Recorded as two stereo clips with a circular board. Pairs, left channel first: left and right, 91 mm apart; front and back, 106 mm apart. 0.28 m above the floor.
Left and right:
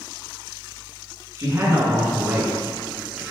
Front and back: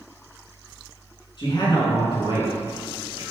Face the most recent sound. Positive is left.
turn(degrees=-10)